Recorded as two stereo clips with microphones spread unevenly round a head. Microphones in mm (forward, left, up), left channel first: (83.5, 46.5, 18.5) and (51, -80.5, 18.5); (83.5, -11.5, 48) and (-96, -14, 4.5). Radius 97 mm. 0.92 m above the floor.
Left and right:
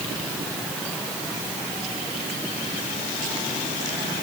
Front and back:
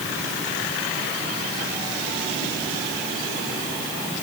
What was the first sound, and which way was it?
Only background noise.